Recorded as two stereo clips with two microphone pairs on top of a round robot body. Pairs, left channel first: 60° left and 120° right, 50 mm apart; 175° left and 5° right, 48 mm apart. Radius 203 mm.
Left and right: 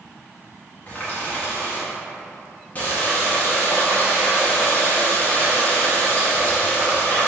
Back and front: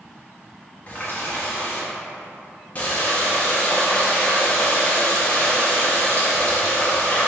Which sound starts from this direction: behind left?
A running tap, at 0.9 s.